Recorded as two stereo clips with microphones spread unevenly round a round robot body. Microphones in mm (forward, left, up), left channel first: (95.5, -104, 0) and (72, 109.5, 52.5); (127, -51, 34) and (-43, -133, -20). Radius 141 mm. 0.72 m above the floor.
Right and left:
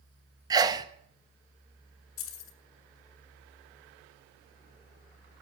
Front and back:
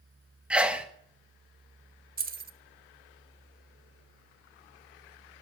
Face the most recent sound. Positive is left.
turn(degrees=-115)